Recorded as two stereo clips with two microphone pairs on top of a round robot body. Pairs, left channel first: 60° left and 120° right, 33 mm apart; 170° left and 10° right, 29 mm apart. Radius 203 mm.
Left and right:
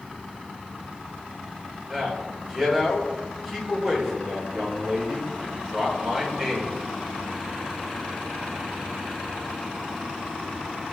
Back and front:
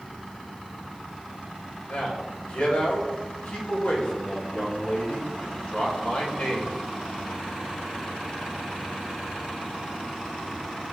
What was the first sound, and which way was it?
A man speaking, 155° left.